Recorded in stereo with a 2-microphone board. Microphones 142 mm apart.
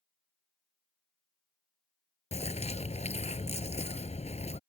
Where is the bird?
50° left (ahead or behind).